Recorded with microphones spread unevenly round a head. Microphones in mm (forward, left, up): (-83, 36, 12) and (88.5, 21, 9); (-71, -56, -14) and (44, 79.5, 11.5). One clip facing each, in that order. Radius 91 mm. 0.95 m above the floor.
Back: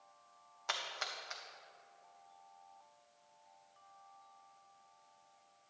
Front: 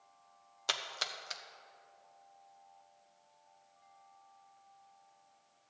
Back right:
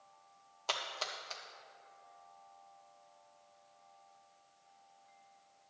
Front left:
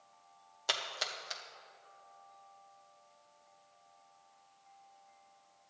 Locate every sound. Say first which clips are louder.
0.7 s a splash: front 1 dB, even; 30° right, 0.7 m